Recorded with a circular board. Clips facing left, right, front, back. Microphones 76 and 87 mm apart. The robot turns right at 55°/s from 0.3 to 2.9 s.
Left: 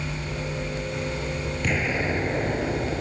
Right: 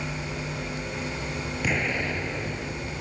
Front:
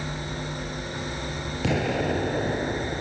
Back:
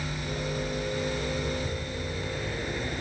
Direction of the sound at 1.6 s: 5° right.